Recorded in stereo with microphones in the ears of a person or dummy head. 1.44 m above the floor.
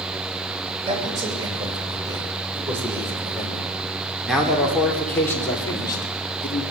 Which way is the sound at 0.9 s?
25° right (ahead or behind).